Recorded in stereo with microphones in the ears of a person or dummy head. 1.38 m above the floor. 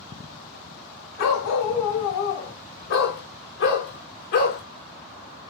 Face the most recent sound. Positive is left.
turn(degrees=55)  # may be behind; listen again after turning